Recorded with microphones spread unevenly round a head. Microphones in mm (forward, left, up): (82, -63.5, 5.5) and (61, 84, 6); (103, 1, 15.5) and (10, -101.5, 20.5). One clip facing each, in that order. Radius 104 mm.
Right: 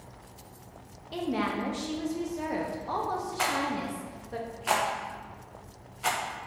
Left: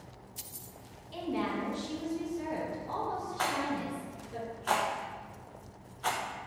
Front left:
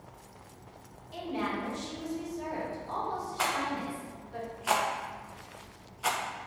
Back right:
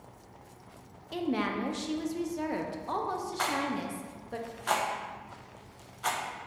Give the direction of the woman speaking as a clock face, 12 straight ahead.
4 o'clock.